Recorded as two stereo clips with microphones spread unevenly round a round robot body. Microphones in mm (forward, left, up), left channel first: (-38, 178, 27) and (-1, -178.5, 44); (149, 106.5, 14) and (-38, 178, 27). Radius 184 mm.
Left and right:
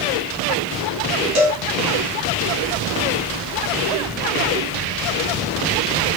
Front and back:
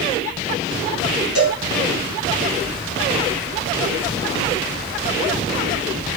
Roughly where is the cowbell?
Ahead right.